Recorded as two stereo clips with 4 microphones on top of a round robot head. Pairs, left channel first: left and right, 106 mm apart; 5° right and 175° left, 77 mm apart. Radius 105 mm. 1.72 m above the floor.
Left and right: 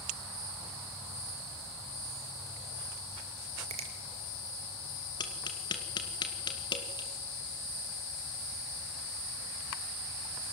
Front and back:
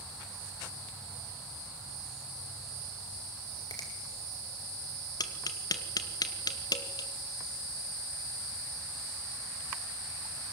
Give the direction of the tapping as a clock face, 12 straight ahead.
11 o'clock.